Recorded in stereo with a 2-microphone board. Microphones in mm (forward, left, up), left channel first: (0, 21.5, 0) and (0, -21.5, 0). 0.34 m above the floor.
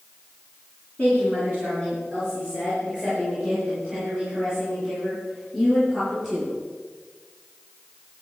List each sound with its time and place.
1.0 s a woman speaking: 30° left (ahead or behind), 4 m; by 6.5 s 5° right (ahead or behind), 8.5 m